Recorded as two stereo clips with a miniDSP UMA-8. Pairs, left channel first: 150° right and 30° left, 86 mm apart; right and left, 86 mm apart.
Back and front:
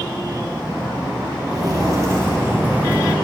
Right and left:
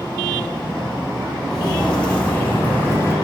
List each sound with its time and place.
1.5 s footsteps: 5° right, 2 m; by 3.1 s 40° right, 1.5 m